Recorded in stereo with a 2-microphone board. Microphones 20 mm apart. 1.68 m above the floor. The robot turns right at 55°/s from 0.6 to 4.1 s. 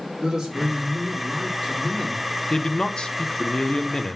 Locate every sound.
0.2 s a man speaking: 30° right, 3.5 m; by 2.3 s 65° left, 3.5 m
2.5 s a man speaking: 50° left, 0.8 m; by 4.2 s 135° left, 0.8 m